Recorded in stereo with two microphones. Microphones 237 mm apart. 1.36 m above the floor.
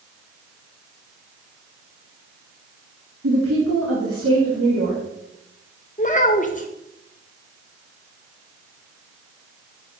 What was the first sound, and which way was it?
A woman speaking, 85° right.